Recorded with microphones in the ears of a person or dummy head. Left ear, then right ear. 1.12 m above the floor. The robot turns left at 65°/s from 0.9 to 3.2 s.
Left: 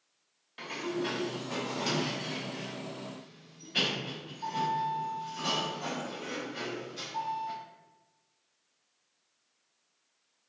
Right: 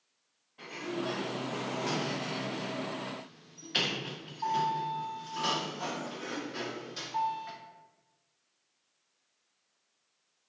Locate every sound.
0.6 s a sliding door: 100° left, 0.6 m; by 7.5 s 50° right, 0.6 m